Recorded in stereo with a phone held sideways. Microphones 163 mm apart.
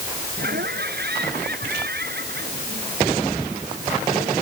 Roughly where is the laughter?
Right.